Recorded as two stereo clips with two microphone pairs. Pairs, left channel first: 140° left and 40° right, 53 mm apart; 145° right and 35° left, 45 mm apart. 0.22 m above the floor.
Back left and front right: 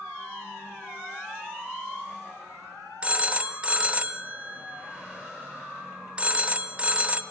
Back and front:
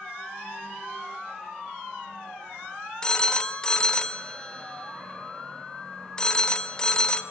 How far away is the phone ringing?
About 0.8 m.